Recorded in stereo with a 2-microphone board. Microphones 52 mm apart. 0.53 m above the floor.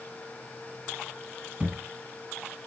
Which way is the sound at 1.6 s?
25° right (ahead or behind).